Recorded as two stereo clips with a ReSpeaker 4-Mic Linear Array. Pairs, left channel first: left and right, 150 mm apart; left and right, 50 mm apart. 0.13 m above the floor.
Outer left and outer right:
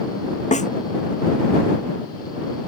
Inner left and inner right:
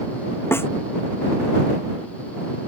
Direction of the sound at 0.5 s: 55° left (ahead or behind).